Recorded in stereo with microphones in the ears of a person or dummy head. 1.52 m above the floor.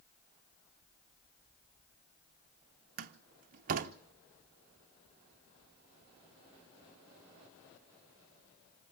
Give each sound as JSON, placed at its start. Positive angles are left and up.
{"t": 3.0, "sound": "a door slam", "side_deg": -50, "distance_m": 0.8}